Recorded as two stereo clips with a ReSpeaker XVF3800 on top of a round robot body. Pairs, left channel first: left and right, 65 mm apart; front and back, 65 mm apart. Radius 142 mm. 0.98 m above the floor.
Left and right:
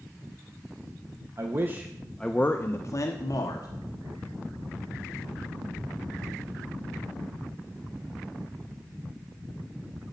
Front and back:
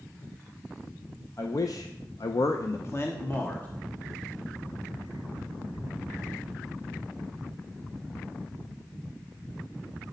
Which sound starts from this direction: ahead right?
A man speaking, at 1.4 s.